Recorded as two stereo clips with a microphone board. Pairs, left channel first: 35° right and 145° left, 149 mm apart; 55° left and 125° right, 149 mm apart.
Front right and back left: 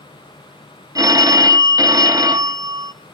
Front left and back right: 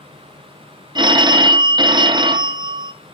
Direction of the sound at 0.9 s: 160° right.